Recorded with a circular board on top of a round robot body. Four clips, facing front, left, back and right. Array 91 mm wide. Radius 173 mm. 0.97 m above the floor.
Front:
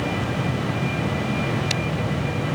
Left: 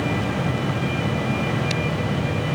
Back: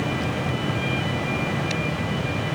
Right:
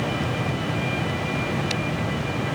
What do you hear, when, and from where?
Only background noise.